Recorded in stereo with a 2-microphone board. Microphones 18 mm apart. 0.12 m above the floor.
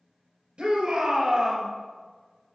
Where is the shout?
55° right (ahead or behind), 2 m; by 1.7 s 40° right (ahead or behind), 1.6 m.